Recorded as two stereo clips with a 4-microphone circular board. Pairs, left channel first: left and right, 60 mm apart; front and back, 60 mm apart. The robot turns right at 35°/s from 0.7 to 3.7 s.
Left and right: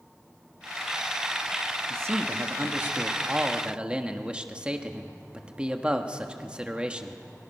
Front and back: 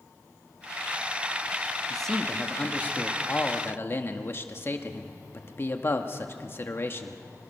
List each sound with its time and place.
1.9 s a man speaking: 85° right, 1.4 m; by 7.2 s 20° right, 1.4 m